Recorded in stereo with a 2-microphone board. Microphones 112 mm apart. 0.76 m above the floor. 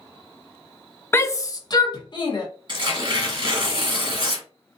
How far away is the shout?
About 0.6 m.